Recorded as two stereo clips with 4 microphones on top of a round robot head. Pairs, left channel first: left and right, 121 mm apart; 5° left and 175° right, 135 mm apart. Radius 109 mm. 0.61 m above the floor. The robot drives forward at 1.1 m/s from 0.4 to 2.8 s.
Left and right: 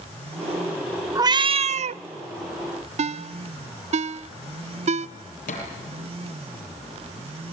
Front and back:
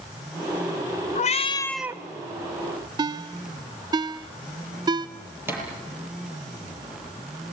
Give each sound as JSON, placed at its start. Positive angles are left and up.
{"t": 1.1, "sound": "a cat meowing", "azimuth_deg": -30, "distance_m": 0.9}
{"t": 3.0, "sound": "a ringtone", "azimuth_deg": -115, "distance_m": 0.6}
{"t": 5.5, "sound": "a thud", "azimuth_deg": 110, "distance_m": 7.0}